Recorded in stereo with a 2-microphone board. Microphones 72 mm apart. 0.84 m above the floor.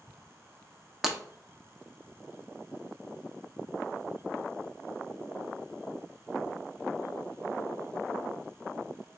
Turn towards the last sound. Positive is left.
turn(degrees=-5)  # may be behind; listen again after turning